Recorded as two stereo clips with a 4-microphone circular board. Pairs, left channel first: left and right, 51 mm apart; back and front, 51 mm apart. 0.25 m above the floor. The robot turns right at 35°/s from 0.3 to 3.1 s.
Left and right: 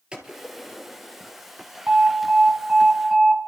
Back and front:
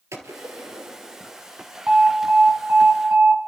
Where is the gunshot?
15° right, 2.5 m; by 1.4 s 25° left, 2.5 m.